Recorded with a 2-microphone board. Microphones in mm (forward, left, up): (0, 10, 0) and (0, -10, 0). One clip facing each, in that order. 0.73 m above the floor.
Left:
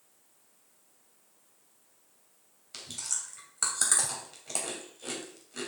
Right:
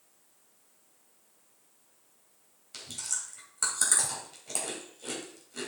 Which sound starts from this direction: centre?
Chewing, at 2.7 s.